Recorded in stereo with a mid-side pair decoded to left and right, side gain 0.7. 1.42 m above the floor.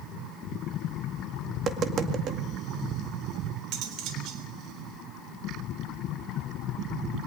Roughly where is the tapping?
Ahead right.